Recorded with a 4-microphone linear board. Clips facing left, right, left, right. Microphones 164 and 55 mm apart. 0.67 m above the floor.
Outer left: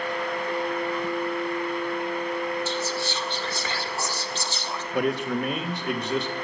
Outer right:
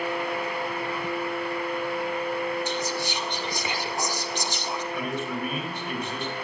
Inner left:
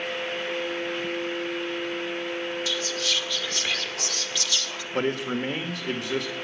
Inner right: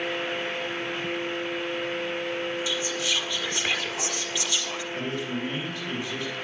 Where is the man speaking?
75° left (ahead or behind), 1.7 m.